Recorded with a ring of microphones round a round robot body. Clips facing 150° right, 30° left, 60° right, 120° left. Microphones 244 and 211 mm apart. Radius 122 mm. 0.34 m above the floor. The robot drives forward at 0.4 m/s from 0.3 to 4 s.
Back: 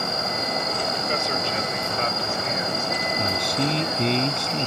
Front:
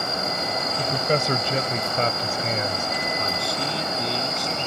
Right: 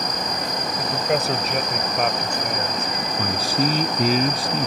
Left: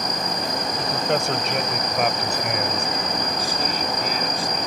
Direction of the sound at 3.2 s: 80° right.